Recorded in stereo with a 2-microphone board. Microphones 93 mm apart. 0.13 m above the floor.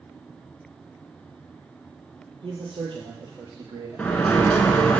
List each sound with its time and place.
2.4 s a man speaking: 65° right (ahead or behind), 3 m; by 4.3 s 30° right (ahead or behind), 2 m
4.0 s a sliding door: 15° left (ahead or behind), 0.7 m